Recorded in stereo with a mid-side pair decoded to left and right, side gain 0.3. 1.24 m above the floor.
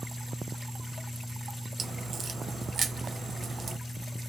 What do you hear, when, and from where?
1.8 s a crack: 70° right, 0.5 m